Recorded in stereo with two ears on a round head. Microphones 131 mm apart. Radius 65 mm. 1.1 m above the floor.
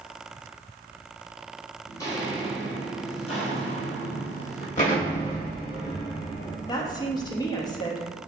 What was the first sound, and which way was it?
Footsteps, 20° left (ahead or behind).